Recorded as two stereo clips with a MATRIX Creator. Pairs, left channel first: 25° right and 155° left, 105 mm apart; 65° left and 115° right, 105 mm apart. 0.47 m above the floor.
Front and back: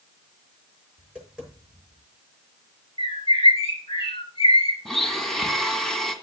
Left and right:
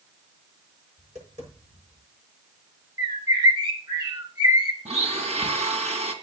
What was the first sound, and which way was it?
Tapping, 125° right.